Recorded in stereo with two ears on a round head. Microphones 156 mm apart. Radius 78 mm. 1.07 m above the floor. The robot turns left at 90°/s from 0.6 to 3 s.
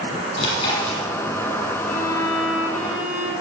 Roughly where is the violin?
Behind left.